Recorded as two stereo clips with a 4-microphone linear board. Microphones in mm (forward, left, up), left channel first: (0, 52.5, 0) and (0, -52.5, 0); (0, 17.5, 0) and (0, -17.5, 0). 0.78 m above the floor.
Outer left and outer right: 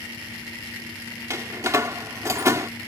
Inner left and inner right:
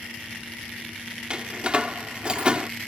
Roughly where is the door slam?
Right.